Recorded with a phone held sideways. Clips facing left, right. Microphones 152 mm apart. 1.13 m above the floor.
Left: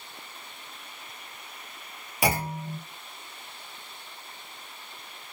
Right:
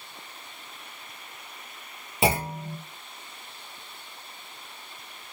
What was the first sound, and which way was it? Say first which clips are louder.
A clunk: right 2 dB; 25° right (ahead or behind).